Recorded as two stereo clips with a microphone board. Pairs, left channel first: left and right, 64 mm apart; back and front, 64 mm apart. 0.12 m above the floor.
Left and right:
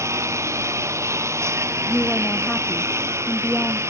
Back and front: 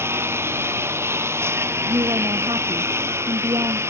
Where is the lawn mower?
50° right; by 3.9 s 45° right.